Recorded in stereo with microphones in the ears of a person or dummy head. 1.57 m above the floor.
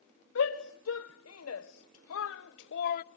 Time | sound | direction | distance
0.3 | a shout | 65° left (ahead or behind) | 1.8 m